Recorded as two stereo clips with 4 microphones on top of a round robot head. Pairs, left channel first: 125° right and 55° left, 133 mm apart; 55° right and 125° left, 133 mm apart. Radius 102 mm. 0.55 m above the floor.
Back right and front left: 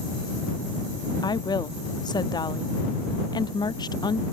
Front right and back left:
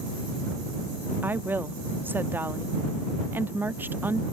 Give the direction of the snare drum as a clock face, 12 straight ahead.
I don't hear a snare drum.